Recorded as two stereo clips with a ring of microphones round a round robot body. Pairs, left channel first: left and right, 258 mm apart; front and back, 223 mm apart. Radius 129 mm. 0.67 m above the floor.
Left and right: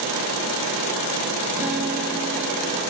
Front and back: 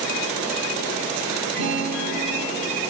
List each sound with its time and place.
1.6 s a guitar: 175° right, 2.5 m